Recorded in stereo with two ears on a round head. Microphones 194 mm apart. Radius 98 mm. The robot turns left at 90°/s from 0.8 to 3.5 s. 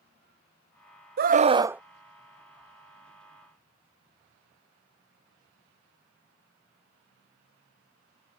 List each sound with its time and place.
1.2 s a scream: 115° right; by 1.8 s 175° right